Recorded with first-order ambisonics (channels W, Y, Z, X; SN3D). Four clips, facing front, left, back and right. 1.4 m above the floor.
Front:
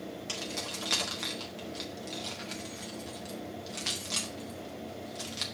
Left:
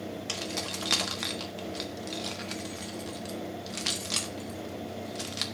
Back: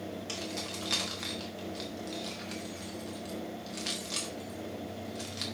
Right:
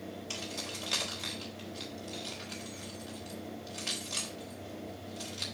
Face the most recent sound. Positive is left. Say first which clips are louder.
# left 5 dB, front 3 dB
turn(degrees=80)